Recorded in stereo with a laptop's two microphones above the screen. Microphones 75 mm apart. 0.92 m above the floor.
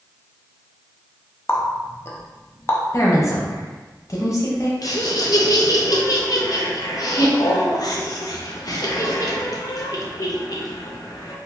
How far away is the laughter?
About 0.9 m.